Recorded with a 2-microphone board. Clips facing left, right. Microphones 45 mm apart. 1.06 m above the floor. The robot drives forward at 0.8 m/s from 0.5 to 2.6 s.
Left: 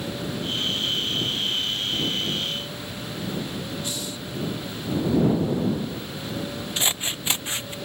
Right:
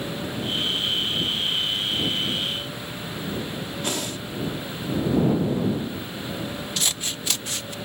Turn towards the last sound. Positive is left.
turn(degrees=25)  # may be behind; listen again after turning